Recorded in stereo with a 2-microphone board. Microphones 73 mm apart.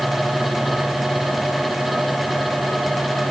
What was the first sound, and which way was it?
Only background noise.